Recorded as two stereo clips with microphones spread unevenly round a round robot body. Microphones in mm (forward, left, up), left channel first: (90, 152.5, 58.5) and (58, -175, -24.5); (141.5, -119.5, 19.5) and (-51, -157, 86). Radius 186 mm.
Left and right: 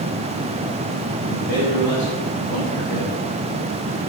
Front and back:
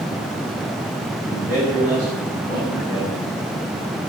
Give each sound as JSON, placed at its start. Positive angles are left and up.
{"t": 1.2, "sound": "a man speaking", "azimuth_deg": 145, "distance_m": 5.5}